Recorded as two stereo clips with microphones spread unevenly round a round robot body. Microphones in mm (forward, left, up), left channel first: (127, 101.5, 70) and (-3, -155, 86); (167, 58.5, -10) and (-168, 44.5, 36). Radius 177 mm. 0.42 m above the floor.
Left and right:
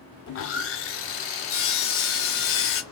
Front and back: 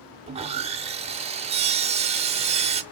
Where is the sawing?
105° left, 0.6 m.